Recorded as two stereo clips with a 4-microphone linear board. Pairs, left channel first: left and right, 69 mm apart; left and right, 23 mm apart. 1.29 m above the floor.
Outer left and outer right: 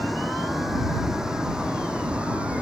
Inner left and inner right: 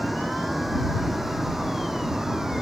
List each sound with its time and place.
0.0 s a vehicle: centre (ahead or behind); by 2.6 s 20° right (ahead or behind)